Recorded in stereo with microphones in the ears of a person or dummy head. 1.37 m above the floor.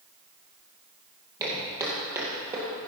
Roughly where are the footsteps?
Right.